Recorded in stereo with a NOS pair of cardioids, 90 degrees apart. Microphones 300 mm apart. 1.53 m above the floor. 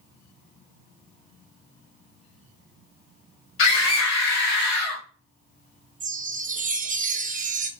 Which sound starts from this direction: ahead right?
A chime, at 6.0 s.